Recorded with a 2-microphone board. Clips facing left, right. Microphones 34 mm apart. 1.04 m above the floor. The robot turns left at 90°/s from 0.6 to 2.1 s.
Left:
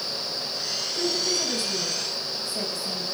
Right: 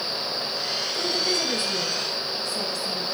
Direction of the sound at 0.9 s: 80° right.